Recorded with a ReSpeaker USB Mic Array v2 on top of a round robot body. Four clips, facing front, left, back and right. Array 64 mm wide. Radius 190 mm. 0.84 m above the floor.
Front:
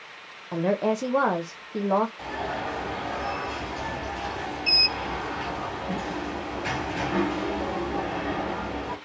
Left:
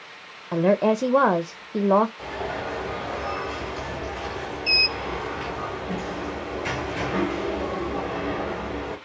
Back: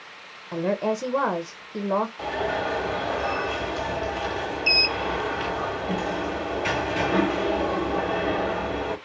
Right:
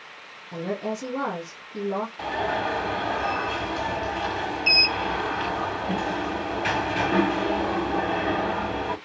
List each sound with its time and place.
0.5 s a woman speaking: 80° left, 0.7 m
2.2 s an alarm: 115° right, 2.5 m